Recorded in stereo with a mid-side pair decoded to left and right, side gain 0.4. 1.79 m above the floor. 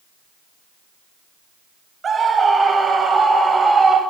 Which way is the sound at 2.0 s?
45° right.